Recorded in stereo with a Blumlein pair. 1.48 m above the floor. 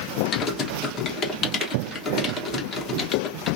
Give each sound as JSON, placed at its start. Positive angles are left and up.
{"t": 0.3, "sound": "typing on a keyboard", "azimuth_deg": 25, "distance_m": 1.2}